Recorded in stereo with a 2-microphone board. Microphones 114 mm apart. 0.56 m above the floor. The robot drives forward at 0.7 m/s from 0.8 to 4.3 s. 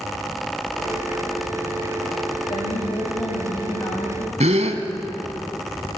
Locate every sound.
2.5 s a woman speaking: 45° left (ahead or behind), 3.5 m; by 4.3 s 35° left (ahead or behind), 4.5 m
4.4 s a gasp: 85° right, 1.6 m